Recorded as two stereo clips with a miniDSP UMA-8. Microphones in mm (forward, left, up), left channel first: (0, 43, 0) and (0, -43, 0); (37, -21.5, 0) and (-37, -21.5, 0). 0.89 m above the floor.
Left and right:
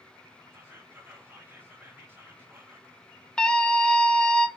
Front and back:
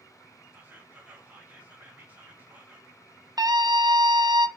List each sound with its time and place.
0.5 s whispering: 135° right, 1.1 m
3.4 s a scream: 165° left, 0.6 m